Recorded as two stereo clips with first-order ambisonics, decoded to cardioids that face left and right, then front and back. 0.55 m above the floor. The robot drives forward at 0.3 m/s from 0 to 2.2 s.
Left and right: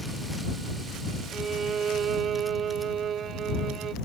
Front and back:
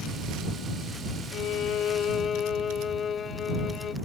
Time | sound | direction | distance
1.3 | a violin | 30° right | ?